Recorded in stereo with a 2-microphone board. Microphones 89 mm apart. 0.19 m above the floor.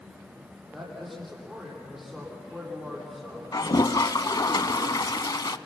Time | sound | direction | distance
0.7 | a man speaking | centre (ahead or behind) | 9 m
3.5 | a toilet flushing | 50° left (ahead or behind) | 0.6 m